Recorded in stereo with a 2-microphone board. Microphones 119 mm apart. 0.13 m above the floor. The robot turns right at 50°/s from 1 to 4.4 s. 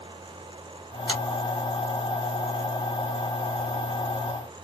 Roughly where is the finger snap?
Left.